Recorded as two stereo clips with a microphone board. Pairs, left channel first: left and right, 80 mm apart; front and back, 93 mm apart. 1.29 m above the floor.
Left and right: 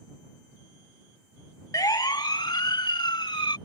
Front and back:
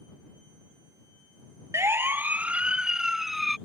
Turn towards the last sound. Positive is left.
turn(degrees=90)